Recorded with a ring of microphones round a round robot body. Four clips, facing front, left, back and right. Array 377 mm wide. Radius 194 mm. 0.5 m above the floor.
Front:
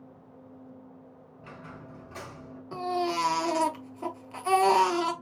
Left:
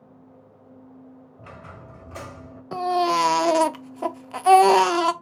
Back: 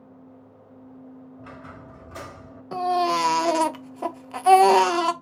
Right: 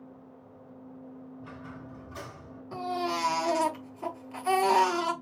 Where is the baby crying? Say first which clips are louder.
Left 10 dB, back 7 dB; 120° left, 0.8 m.